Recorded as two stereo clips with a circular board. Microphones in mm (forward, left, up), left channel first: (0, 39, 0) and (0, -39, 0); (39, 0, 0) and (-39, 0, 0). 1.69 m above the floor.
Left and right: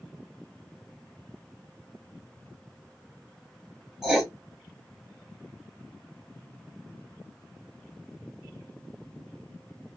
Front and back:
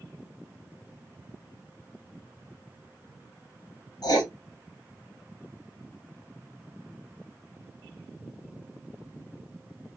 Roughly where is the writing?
Ahead.